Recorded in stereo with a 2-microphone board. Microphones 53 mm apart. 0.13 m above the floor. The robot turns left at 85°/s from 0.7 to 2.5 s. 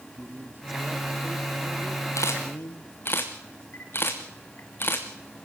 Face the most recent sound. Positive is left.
turn(degrees=45)  # may be behind; listen again after turning